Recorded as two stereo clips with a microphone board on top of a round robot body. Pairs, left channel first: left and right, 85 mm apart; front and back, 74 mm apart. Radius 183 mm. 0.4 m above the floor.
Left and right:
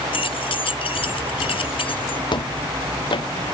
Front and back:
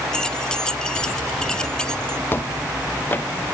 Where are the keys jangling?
80° left.